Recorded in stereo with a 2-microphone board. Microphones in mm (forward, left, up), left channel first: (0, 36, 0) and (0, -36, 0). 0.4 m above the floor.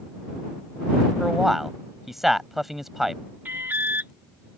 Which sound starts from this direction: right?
An alarm, at 3.5 s.